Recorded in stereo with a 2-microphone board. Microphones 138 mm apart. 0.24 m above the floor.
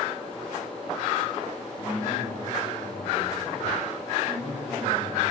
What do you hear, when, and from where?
1.8 s a man speaking: 60° left (ahead or behind), 8.5 m; by 5.2 s 70° left (ahead or behind), 10.5 m